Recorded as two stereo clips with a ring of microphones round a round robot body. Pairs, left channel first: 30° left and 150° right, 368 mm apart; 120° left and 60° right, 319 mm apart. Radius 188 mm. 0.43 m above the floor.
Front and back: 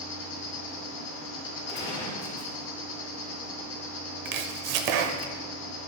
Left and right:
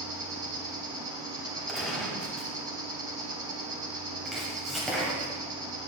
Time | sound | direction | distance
0.0 | an insect | 10° left | 2 m
1.7 | a gunshot | 25° left | 2.5 m
4.2 | chopping | 150° right | 0.7 m